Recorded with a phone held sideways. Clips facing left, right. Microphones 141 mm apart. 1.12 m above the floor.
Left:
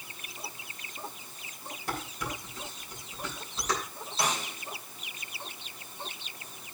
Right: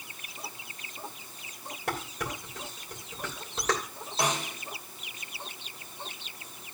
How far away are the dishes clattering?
About 3 m.